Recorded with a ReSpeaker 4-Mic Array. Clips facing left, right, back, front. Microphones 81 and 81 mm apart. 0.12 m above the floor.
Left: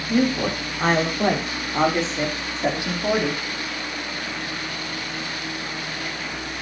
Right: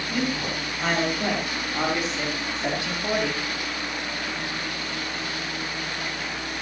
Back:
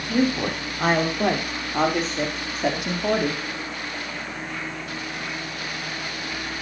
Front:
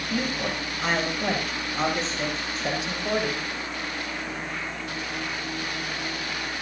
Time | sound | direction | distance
0.1 | a woman speaking | 140° left | 6 m